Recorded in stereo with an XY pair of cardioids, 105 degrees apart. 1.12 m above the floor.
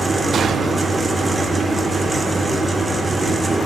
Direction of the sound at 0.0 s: 25° right.